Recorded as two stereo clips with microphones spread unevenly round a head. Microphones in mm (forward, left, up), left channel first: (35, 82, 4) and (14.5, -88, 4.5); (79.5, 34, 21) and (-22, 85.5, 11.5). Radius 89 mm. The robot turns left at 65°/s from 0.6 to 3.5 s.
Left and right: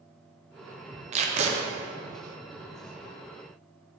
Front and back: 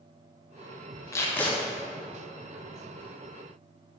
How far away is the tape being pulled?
About 0.6 m.